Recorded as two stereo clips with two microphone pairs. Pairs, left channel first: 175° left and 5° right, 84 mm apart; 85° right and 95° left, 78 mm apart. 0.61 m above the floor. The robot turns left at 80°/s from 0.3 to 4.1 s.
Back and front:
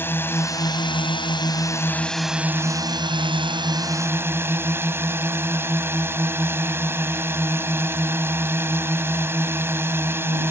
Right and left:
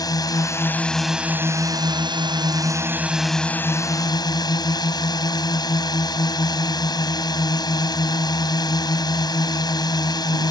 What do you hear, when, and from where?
0.0 s a drone: 120° right; by 10.5 s 65° right